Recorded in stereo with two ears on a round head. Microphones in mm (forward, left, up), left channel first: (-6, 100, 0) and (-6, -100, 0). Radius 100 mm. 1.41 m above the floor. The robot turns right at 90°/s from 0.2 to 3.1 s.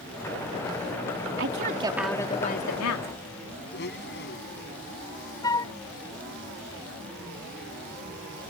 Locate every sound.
1.4 s a woman speaking: 60° right; by 3.1 s 90° left
3.7 s a blender: 50° left (ahead or behind)
5.4 s a flute: 20° left (ahead or behind)